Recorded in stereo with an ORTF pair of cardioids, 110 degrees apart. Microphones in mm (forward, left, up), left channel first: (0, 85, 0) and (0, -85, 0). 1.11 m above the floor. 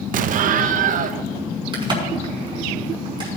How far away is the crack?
About 6 m.